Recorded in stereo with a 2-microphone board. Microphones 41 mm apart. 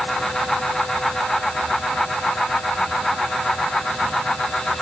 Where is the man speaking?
I don't hear a man speaking.